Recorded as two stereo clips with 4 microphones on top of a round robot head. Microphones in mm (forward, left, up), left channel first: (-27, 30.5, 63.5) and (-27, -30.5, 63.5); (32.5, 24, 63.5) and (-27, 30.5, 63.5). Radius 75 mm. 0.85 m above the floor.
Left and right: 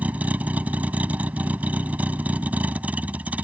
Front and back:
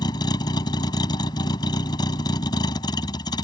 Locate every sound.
0.0 s a vehicle: 20° right